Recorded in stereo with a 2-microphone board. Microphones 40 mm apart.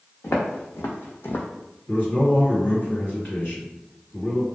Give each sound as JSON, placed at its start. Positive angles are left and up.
{"t": 0.2, "sound": "footsteps", "side_deg": 60, "distance_m": 0.8}
{"t": 1.9, "sound": "a man speaking", "side_deg": 45, "distance_m": 1.9}